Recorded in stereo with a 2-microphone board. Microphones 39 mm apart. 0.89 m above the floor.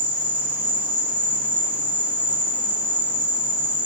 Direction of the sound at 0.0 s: 60° right (ahead or behind).